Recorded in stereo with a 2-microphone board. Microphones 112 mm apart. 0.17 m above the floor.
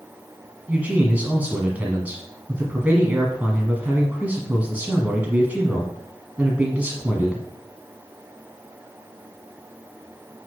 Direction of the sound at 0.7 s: 15° right (ahead or behind).